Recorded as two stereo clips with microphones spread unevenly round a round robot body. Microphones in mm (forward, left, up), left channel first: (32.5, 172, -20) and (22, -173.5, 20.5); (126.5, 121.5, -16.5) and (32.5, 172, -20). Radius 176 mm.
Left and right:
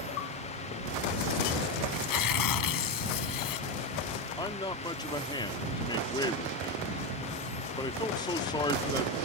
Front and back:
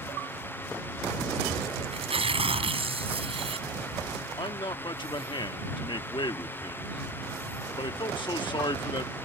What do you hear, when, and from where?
1.9 s tearing paper: 125° left
4.4 s a man speaking: 15° left